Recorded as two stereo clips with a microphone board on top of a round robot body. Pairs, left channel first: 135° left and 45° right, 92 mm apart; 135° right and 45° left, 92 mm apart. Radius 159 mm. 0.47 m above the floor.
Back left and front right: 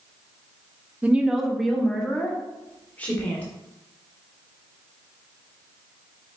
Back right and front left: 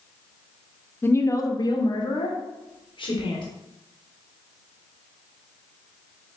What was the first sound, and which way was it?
A woman speaking, 105° right.